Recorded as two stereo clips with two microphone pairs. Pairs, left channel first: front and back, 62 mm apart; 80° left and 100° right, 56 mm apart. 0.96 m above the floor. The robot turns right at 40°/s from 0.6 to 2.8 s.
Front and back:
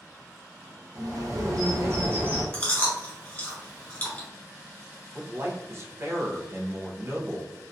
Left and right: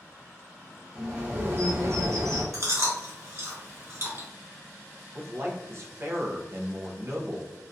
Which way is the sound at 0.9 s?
175° right.